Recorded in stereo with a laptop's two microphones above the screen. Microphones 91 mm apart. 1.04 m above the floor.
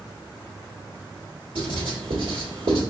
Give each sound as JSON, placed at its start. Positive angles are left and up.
{"t": 1.6, "sound": "writing", "side_deg": -75, "distance_m": 1.4}